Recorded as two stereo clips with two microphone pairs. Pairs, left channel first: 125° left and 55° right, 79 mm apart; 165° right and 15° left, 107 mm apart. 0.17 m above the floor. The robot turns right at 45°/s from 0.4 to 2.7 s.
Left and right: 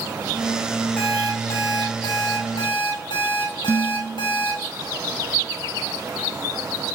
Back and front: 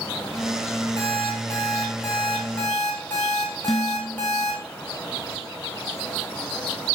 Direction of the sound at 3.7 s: 80° right.